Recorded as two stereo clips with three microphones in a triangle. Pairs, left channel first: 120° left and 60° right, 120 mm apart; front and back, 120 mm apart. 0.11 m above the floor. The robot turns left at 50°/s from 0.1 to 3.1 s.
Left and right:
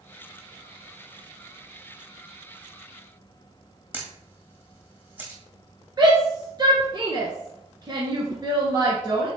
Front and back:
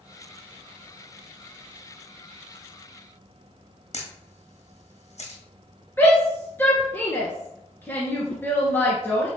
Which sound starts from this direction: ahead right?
A shout, at 6.0 s.